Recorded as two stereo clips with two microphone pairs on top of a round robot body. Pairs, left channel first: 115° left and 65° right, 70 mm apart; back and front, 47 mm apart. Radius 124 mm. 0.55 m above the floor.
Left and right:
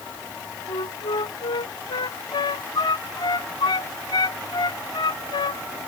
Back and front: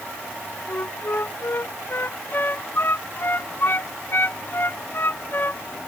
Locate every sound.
0.7 s a flute: 135° left